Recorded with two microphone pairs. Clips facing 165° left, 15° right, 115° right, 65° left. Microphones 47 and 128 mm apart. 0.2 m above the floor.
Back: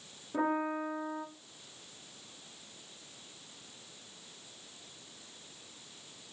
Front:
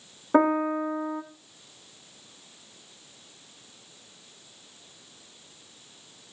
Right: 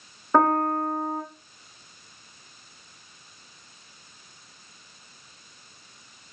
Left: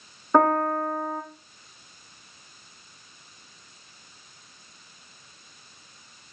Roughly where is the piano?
Ahead right.